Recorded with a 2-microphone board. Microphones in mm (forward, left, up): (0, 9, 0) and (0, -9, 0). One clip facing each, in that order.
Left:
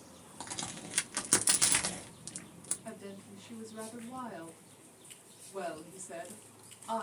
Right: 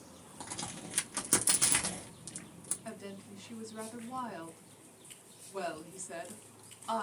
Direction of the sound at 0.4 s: 30° left (ahead or behind).